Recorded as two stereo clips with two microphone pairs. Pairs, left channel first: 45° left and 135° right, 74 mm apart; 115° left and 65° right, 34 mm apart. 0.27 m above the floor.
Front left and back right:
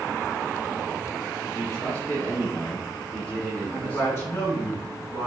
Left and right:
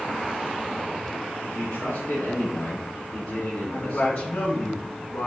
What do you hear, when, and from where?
1.4 s a man speaking: 95° left, 3.5 m; by 4.3 s 125° left, 4 m
3.7 s a man speaking: 100° left, 2.5 m